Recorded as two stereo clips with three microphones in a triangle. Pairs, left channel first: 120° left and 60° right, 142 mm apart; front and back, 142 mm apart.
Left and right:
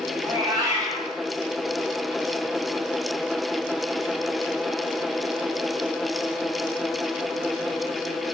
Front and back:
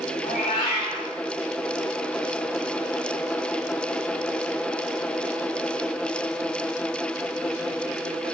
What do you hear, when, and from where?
0.2 s a cat meowing: 10° left, 1.3 m